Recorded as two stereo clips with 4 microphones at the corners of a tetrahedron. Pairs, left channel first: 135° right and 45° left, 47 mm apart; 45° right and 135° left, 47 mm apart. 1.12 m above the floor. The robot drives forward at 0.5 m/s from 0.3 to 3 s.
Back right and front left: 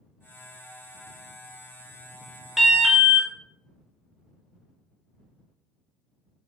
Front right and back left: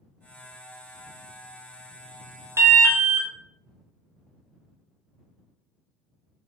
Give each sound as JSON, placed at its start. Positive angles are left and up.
{"t": 2.6, "sound": "an alarm", "azimuth_deg": 135, "distance_m": 0.5}